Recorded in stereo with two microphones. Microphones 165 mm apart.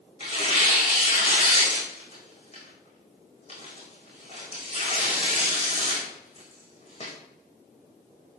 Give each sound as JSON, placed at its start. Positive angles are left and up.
{"t": 0.2, "sound": "tearing paper", "side_deg": 35, "distance_m": 5.0}